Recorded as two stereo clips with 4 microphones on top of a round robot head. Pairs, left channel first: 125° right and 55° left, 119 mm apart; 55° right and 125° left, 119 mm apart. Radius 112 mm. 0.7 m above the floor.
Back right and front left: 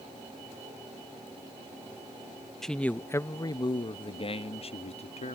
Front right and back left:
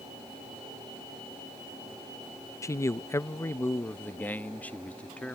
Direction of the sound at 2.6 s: 40° right.